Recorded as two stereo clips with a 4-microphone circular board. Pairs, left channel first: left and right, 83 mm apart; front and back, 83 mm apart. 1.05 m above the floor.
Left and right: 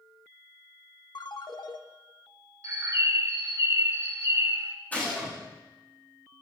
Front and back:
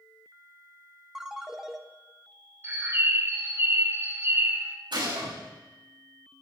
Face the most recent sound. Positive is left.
turn(degrees=160)